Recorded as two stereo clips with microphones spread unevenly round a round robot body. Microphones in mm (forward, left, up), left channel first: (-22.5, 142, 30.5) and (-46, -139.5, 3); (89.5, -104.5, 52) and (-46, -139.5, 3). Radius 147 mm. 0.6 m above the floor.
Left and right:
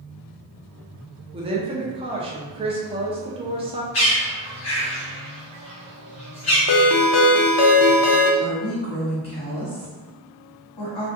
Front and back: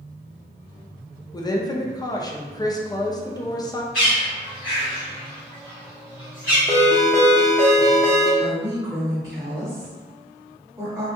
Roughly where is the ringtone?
Left.